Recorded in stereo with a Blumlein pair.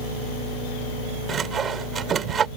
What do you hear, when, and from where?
1.3 s sawing: 20° right